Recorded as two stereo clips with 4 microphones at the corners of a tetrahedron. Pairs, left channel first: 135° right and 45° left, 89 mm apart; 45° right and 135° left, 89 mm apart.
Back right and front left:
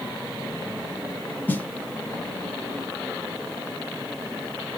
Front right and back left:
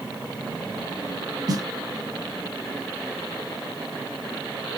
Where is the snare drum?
160° left, 0.5 m.